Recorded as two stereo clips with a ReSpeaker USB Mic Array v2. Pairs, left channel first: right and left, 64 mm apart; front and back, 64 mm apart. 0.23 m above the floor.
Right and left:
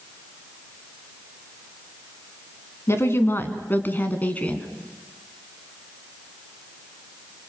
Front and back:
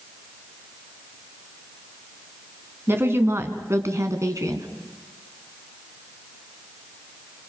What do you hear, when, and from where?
2.9 s a woman speaking: 130° right, 2.5 m; by 4.7 s 160° right, 2.5 m